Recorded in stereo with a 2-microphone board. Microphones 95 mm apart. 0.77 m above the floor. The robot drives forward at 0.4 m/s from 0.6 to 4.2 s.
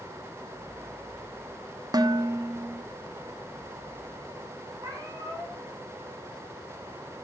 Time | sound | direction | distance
1.9 | dishes clattering | 45° right (ahead or behind) | 1.0 m
4.8 | a cat meowing | 35° right (ahead or behind) | 6 m